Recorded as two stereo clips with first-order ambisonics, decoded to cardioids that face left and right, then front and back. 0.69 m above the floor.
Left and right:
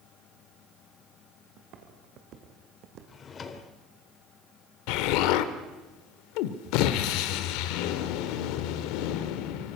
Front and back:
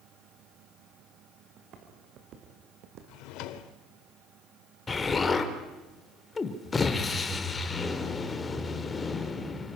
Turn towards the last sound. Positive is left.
turn(degrees=75)